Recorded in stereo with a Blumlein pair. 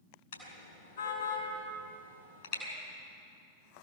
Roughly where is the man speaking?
No man speaking in this recording.